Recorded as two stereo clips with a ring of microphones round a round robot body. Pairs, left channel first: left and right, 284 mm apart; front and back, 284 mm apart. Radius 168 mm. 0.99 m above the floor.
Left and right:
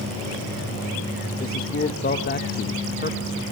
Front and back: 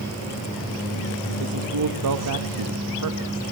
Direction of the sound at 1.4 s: 150° left.